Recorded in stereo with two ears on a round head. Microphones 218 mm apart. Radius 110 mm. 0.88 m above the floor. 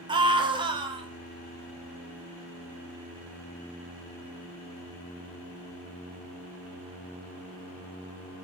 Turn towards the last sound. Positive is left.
turn(degrees=-20)  # may be behind; listen again after turning